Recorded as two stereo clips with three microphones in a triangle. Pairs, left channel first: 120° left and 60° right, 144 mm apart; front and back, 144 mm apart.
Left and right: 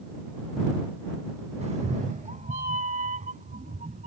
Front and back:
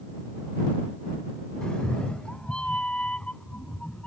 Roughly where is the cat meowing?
Right.